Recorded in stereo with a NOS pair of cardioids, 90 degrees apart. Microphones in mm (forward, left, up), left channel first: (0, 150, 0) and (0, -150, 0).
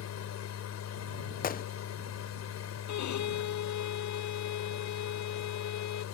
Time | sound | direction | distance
0.0 | a machine running | 60° left | ?
1.4 | a gunshot | 30° left | ?
2.9 | a violin | 65° left | ?